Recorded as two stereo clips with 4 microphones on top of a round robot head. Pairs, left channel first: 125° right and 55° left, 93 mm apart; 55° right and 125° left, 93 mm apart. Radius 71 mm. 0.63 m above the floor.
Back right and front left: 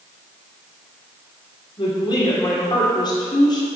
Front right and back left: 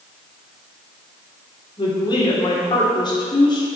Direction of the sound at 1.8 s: 85° right.